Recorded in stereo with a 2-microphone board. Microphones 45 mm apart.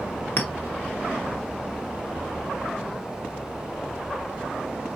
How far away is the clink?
About 0.8 m.